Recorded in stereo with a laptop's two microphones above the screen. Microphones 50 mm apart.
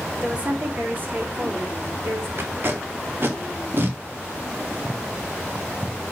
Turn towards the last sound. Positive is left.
turn(degrees=-50)  # may be behind; listen again after turning